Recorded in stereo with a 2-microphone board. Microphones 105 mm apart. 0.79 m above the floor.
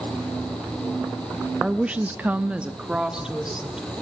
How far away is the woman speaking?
About 0.8 m.